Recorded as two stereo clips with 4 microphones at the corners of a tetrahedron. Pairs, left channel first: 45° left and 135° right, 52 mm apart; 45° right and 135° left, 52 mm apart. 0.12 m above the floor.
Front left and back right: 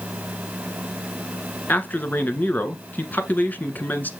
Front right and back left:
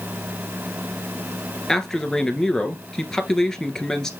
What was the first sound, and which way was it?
A man speaking, 30° left.